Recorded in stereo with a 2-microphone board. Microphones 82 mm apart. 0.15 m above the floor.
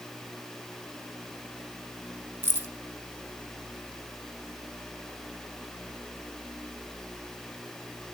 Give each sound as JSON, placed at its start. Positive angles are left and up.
{"t": 2.4, "sound": "keys jangling", "side_deg": -30, "distance_m": 0.9}